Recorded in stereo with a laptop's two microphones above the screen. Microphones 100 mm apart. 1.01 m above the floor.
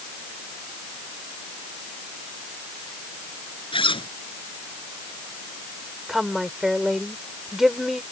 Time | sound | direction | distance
3.7 | a zipper | 65° left (ahead or behind) | ?
6.1 | a woman speaking | 5° right (ahead or behind) | ?